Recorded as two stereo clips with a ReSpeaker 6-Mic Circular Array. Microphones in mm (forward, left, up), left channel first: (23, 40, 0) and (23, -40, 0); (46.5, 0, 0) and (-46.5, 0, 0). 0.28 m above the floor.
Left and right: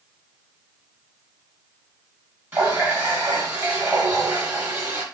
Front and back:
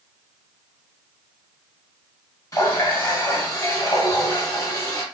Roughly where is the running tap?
Ahead right.